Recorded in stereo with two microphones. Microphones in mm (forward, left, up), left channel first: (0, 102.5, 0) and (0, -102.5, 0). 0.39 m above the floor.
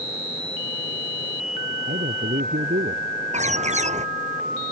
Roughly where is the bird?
Right.